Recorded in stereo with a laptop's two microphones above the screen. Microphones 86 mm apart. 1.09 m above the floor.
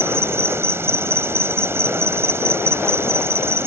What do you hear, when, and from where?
0.0 s an insect: 30° right (ahead or behind)